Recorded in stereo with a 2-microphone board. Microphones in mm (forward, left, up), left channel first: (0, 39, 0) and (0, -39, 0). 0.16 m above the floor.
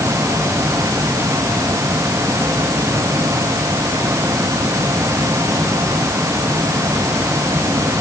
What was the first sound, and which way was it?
Only background noise.